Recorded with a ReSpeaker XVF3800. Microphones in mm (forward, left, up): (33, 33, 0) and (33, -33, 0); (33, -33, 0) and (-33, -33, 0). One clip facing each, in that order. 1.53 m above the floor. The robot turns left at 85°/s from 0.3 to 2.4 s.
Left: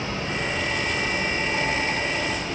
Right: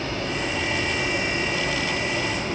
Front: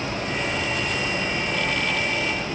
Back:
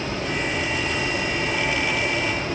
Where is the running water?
30° left, 5 m; by 2.5 s 150° right, 5 m.